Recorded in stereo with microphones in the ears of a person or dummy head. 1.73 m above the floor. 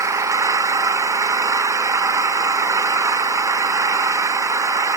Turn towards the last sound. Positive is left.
turn(degrees=-15)  # may be behind; listen again after turning